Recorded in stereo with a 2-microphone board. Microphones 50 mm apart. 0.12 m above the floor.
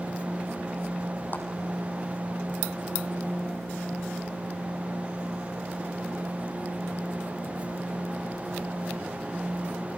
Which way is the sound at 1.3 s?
45° left (ahead or behind).